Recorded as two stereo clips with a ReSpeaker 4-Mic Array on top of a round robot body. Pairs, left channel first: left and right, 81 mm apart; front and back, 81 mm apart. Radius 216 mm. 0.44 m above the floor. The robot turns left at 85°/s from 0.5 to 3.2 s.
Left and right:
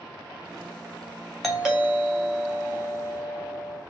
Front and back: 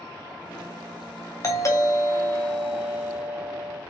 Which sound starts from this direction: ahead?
A doorbell, at 1.4 s.